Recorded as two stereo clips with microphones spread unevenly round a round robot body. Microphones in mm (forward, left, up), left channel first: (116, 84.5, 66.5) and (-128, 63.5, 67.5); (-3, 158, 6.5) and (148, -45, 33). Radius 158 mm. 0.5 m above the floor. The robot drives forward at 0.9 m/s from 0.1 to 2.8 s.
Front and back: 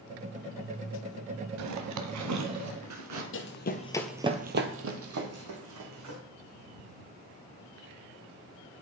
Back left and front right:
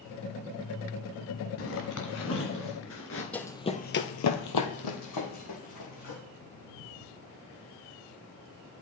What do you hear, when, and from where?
1.6 s a zipper: straight behind, 0.9 m
3.3 s running footsteps: 40° left, 1.4 m; by 6.2 s 175° left, 3.5 m